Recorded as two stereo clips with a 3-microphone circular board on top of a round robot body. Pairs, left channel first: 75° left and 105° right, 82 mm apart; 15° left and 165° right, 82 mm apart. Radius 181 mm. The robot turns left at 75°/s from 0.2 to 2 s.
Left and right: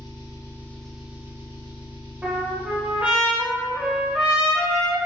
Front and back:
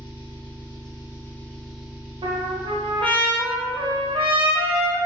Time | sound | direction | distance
0.0 | an engine running | 40° left | 1.4 m
2.2 | a trumpet | straight behind | 0.7 m